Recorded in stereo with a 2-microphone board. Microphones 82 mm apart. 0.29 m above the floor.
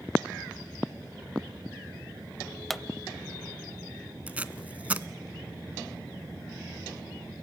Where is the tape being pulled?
20° right (ahead or behind), 0.5 m.